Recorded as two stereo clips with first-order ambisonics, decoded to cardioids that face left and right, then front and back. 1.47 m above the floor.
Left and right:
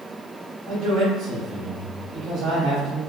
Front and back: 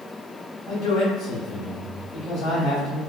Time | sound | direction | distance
0.7 | a man speaking | 25° right | 2.0 m